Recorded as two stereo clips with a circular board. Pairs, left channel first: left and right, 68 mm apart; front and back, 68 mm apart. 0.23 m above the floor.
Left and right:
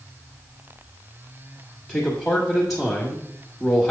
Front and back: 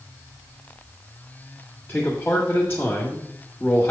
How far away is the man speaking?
About 1.5 m.